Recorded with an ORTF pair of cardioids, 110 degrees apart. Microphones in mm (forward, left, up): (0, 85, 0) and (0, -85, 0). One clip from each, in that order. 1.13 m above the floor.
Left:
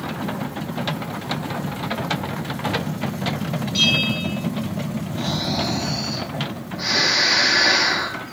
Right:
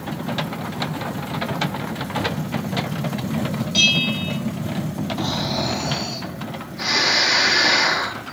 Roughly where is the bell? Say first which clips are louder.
Right 1 dB; ahead right.